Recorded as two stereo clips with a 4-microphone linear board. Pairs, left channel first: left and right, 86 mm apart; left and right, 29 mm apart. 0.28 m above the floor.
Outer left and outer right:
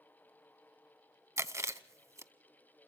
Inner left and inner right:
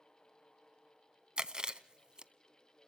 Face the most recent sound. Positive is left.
turn(degrees=-35)  # may be behind; listen again after turning